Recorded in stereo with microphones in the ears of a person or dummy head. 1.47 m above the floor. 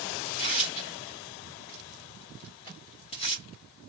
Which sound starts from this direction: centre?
A microwave, at 2.6 s.